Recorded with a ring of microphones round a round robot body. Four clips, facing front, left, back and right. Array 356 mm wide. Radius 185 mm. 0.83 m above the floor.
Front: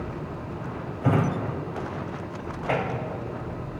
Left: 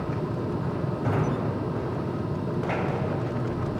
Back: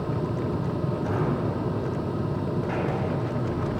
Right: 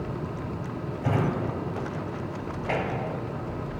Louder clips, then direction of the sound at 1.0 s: Right 1 dB, front 5 dB; 10° right.